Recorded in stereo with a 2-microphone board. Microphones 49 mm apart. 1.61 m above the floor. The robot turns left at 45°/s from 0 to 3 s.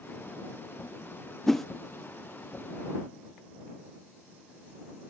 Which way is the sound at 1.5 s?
10° left (ahead or behind).